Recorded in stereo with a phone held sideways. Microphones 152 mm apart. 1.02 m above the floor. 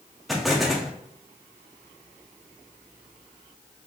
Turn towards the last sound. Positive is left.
turn(degrees=0)  # may be behind; listen again after turning